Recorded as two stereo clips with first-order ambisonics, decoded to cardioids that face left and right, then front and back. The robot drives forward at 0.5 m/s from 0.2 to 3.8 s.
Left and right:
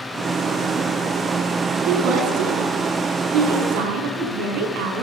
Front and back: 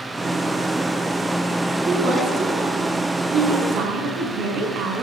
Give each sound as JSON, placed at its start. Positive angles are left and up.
{"t": 1.9, "sound": "a woman speaking", "azimuth_deg": -130, "distance_m": 7.5}